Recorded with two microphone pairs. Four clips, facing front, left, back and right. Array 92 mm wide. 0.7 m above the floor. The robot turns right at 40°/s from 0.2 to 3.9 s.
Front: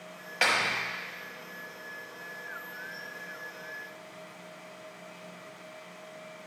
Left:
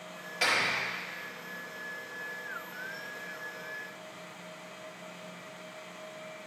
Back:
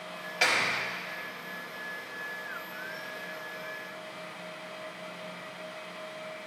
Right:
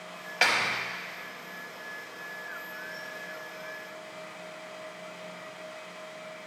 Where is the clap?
60° right, 1.1 m; by 0.8 s 50° right, 1.1 m.